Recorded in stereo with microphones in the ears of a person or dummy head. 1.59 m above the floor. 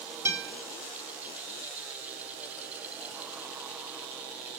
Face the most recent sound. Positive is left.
turn(degrees=-15)  # may be behind; listen again after turning